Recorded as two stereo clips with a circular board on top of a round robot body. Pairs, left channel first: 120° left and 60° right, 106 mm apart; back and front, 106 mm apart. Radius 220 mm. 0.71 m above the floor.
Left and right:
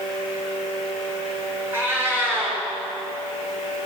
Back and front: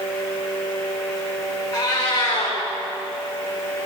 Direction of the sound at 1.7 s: 130° right.